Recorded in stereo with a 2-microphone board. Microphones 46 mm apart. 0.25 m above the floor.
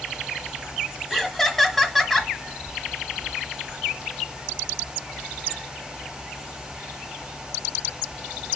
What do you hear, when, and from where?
1.1 s laughter: 5° left (ahead or behind), 1.3 m